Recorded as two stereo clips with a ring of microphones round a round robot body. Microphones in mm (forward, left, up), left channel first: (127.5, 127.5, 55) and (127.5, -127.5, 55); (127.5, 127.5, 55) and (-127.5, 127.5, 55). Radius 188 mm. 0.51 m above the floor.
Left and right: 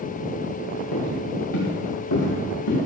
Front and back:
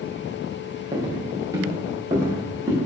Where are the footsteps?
105° left, 4.5 m.